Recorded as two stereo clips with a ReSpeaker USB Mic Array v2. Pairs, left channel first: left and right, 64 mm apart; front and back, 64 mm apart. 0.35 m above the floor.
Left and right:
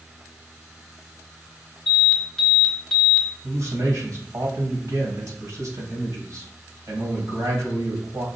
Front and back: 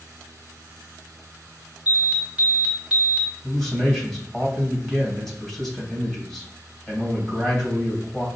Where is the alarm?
145° left, 1.7 m.